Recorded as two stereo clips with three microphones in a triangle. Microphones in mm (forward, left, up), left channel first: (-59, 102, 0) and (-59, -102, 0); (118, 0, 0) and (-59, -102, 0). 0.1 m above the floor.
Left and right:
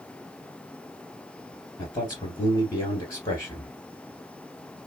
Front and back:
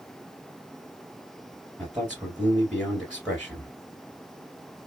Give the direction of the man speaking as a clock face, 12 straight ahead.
8 o'clock.